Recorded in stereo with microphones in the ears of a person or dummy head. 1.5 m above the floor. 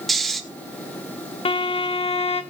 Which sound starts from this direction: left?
A violin, at 1.4 s.